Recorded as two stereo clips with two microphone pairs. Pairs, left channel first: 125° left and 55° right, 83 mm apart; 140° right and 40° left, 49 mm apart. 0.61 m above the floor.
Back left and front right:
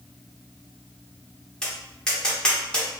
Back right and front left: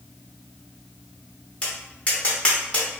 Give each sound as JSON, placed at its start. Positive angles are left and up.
{"t": 1.6, "sound": "tapping", "azimuth_deg": -165, "distance_m": 1.0}